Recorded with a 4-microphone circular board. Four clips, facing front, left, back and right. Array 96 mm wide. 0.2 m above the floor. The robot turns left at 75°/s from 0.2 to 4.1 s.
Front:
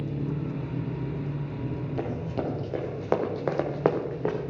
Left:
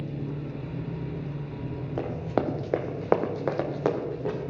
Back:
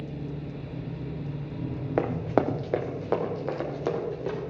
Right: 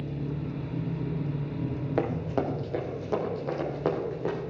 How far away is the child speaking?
No child speaking in this recording.